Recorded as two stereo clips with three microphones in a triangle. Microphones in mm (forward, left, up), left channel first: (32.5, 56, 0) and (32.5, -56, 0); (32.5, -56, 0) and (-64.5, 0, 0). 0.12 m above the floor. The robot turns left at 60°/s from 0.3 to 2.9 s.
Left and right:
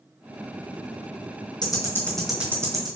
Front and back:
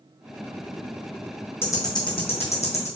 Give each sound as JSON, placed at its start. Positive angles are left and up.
{"t": 1.6, "sound": "ticking", "azimuth_deg": 40, "distance_m": 1.8}